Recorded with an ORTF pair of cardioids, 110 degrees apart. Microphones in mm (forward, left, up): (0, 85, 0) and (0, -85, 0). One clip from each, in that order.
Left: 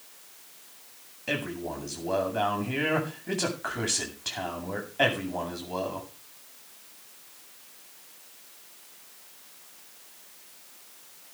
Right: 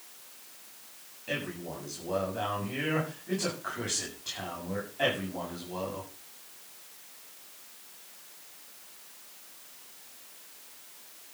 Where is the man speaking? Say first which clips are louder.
Left 4 dB; 55° left, 8 m.